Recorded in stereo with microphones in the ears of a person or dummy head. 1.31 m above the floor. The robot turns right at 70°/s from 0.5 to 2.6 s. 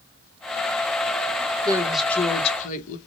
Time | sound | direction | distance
1.6 | a woman speaking | 25° right | 1.3 m